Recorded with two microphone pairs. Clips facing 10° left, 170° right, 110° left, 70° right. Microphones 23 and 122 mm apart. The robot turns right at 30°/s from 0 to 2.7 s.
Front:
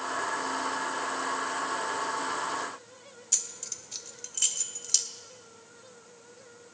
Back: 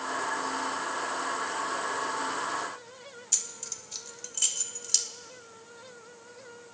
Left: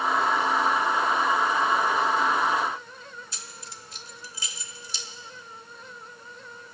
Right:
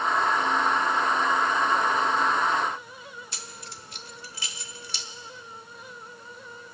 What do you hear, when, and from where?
3.3 s keys jangling: 80° right, 1.0 m